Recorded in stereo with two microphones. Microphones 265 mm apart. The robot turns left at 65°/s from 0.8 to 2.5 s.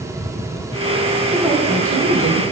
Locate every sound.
1.3 s a woman speaking: 5° left, 6 m; by 2.4 s 70° right, 6 m